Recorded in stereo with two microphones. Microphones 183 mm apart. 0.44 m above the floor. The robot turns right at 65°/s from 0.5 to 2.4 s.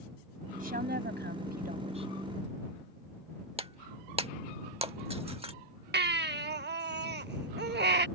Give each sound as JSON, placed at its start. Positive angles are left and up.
{"t": 0.6, "sound": "a woman speaking", "azimuth_deg": -130}
{"t": 3.6, "sound": "breaking glass", "side_deg": -35}
{"t": 5.9, "sound": "a baby crying", "side_deg": -70}